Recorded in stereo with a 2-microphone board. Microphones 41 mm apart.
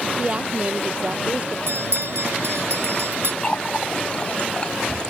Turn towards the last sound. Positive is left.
turn(degrees=25)  # may be behind; listen again after turning